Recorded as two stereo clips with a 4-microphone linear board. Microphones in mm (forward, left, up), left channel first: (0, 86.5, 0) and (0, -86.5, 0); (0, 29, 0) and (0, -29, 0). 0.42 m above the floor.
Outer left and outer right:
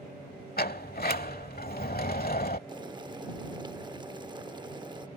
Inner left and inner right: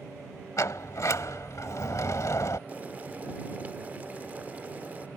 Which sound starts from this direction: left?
A sliding door, at 0.6 s.